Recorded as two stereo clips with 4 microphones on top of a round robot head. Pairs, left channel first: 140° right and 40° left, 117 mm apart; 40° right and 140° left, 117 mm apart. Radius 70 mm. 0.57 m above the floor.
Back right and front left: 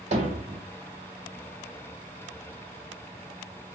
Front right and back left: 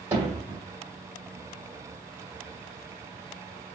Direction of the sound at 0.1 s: 70° left.